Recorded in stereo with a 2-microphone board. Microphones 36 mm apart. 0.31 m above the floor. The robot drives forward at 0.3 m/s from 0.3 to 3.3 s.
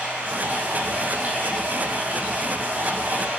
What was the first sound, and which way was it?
Running water, 55° right (ahead or behind).